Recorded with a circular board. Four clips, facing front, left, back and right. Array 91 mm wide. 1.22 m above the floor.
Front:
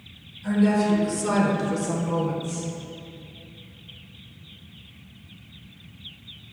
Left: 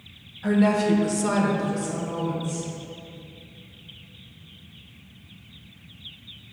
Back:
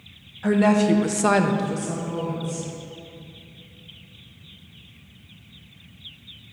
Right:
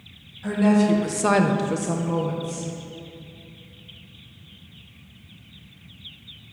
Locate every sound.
0.4 s a woman speaking: 165° left, 1.1 m; by 2.7 s 55° right, 1.4 m